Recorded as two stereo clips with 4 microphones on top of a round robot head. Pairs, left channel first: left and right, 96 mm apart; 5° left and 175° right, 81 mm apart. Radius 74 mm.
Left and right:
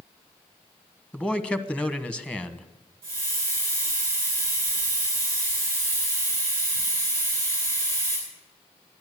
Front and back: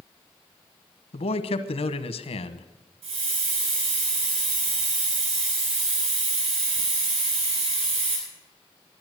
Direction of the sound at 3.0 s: 160° right.